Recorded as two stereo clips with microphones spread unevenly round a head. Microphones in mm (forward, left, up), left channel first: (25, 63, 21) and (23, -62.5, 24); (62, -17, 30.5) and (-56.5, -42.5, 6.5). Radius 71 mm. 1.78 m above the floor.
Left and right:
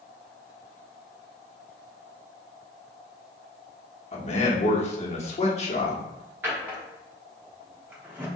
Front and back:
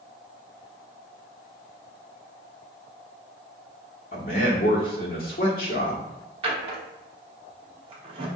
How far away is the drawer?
About 0.9 m.